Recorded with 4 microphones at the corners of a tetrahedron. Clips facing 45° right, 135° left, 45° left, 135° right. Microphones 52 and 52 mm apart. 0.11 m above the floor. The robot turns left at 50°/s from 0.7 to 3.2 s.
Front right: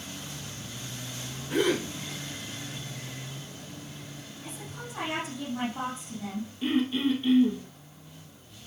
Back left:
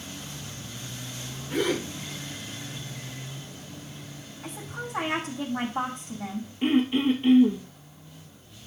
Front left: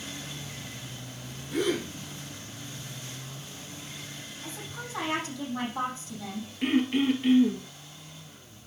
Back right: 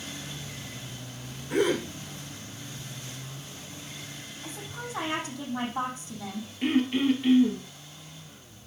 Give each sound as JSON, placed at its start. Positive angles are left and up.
{"t": 1.5, "sound": "a gasp", "azimuth_deg": -120, "distance_m": 6.0}
{"t": 4.4, "sound": "a woman speaking", "azimuth_deg": 150, "distance_m": 6.0}
{"t": 6.6, "sound": "throat clearing", "azimuth_deg": 130, "distance_m": 2.0}